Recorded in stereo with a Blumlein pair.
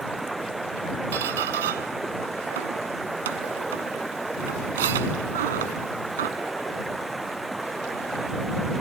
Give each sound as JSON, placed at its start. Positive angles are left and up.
{"t": 0.0, "sound": "running water", "azimuth_deg": -5}
{"t": 1.1, "sound": "a squeak", "azimuth_deg": -60}